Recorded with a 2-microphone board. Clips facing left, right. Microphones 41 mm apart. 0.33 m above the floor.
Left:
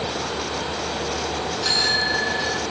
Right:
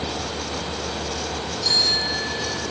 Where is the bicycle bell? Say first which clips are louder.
Left 1 dB; 70° left (ahead or behind), 2.5 m.